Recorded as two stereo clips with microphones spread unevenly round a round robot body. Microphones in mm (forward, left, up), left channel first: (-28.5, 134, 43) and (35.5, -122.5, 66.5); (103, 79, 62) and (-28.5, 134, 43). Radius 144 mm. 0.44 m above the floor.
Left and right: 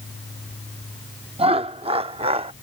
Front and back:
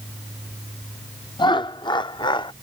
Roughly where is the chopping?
I don't hear chopping.